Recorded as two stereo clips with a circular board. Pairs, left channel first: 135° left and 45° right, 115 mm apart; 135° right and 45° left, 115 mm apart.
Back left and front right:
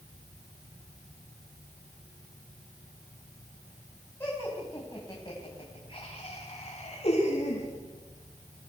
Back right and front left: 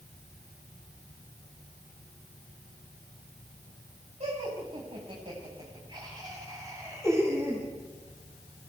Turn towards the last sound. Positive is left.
turn(degrees=120)